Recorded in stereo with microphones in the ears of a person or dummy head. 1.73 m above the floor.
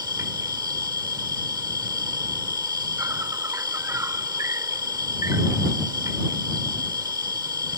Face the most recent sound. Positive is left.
turn(degrees=-15)  # may be behind; listen again after turning